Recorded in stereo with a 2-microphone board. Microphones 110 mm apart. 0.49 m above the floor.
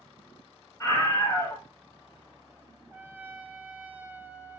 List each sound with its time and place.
0.8 s a scream: 25° left (ahead or behind), 3 m
2.9 s a trumpet: 15° right (ahead or behind), 1.1 m